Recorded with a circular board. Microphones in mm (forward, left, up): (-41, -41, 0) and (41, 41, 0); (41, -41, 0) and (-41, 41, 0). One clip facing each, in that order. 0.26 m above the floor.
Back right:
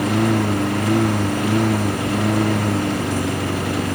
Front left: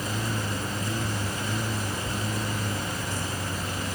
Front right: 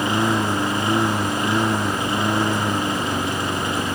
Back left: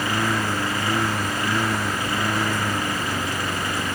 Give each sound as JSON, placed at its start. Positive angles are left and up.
{"t": 0.0, "sound": "a lawn mower", "azimuth_deg": -115}